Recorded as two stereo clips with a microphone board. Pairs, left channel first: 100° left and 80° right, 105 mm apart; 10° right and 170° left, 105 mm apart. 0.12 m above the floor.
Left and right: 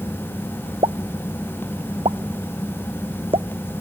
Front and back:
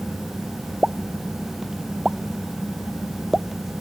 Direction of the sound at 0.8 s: 105° right.